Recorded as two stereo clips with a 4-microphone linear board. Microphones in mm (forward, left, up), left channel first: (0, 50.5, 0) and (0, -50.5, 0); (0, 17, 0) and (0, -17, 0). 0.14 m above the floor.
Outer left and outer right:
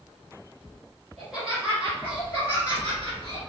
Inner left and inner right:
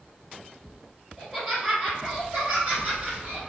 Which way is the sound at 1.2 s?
5° right (ahead or behind).